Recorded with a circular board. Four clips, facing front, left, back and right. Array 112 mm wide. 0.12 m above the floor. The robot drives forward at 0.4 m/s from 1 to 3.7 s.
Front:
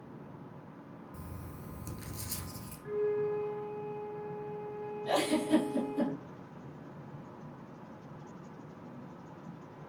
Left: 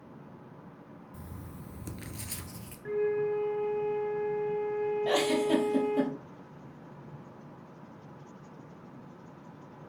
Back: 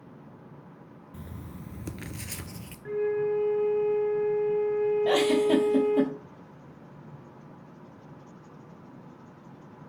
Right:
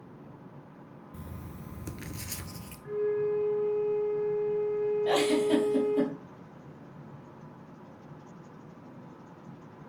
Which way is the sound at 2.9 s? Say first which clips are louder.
Even, back 5 dB; 125° left.